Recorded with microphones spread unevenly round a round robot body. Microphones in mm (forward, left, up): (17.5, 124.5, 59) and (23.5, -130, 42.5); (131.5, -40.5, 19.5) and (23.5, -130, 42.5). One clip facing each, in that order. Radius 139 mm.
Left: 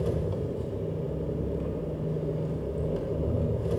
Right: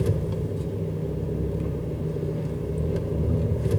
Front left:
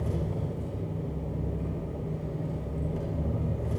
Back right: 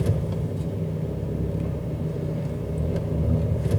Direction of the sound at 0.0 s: 150° right.